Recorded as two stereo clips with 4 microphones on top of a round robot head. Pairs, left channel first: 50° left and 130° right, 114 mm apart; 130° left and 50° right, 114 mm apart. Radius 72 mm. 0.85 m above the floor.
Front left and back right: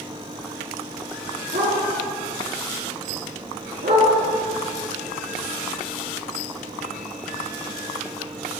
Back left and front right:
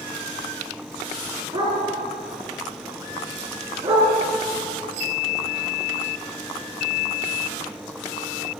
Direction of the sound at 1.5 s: 110° right.